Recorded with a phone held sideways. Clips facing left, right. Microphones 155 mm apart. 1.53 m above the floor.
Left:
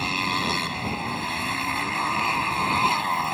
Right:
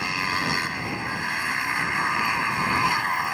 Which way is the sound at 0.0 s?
25° left (ahead or behind).